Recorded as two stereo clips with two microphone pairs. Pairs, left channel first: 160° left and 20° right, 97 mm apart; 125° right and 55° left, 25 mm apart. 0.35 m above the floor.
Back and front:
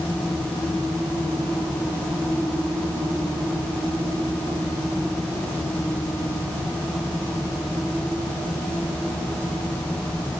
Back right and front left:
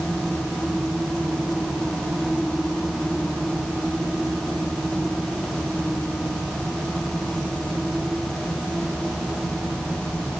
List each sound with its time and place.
Only background noise.